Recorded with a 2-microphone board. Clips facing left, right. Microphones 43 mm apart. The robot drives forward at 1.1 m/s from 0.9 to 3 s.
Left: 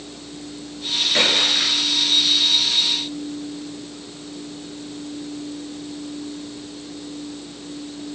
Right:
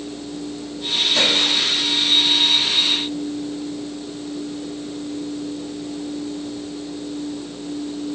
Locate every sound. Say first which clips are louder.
1.1 s a splash: left 1 dB; 35° left (ahead or behind), 7 m; by 1.8 s 40° left (ahead or behind), 6.5 m